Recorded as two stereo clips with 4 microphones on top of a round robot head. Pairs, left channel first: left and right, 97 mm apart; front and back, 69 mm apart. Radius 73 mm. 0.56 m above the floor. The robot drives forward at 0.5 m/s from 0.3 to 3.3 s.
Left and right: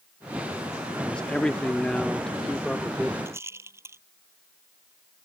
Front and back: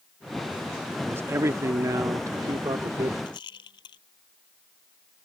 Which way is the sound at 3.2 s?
25° right.